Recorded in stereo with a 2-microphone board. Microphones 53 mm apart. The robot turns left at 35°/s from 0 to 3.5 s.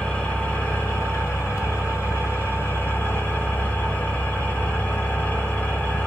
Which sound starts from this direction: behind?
An engine running, at 0.0 s.